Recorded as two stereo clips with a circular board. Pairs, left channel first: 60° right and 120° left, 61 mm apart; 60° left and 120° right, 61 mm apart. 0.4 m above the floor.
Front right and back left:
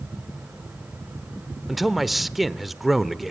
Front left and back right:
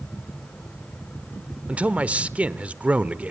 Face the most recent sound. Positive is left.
turn(degrees=-155)